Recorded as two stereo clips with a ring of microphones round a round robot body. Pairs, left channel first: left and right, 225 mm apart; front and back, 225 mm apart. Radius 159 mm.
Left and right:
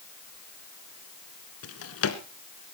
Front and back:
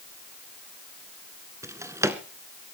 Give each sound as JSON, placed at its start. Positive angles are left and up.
{"t": 1.6, "sound": "a drawer", "azimuth_deg": 100, "distance_m": 1.7}